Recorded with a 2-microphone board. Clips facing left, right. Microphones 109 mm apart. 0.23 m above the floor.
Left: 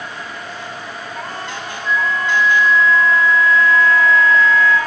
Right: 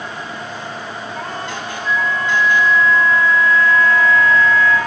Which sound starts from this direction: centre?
A flute, at 1.9 s.